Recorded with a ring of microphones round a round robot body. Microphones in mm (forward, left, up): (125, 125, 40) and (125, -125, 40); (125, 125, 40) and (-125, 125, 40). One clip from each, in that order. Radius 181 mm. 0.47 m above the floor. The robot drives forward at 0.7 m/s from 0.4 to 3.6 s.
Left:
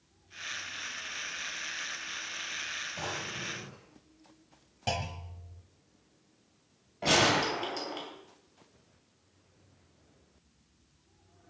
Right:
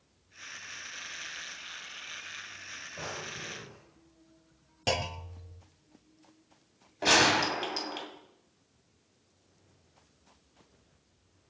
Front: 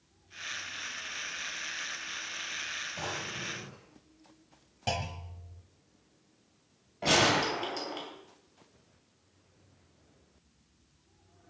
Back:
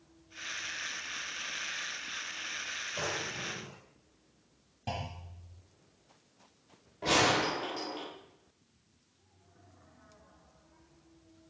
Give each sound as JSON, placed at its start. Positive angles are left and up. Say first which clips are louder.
{"t": 3.0, "sound": "a drawer", "louder": "left 2 dB, back 1 dB", "azimuth_deg": 155, "distance_m": 3.5}
{"t": 4.9, "sound": "a clunk", "louder": "right 3 dB, front 5 dB", "azimuth_deg": -45, "distance_m": 0.7}
{"t": 7.0, "sound": "a gunshot", "louder": "right 2 dB, front 2 dB", "azimuth_deg": -85, "distance_m": 3.0}